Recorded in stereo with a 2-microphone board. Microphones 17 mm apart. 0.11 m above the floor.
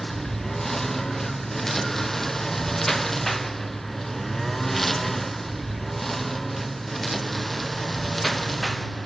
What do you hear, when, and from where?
0.0 s a lawn mower: 15° left (ahead or behind); by 9.1 s centre (ahead or behind)